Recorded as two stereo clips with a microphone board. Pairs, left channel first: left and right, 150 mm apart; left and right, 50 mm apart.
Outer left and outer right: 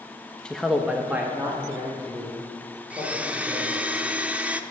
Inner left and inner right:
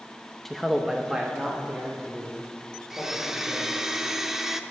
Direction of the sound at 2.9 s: 10° right (ahead or behind).